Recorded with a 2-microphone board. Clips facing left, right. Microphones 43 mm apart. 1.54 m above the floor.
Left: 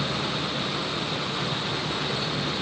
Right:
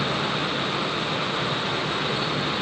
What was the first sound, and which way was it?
Only background noise.